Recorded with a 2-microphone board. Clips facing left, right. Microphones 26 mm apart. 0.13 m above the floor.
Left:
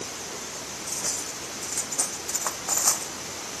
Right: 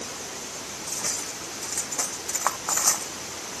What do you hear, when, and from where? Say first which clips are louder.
0.9 s cutlery clinking: right 1 dB; 30° right (ahead or behind)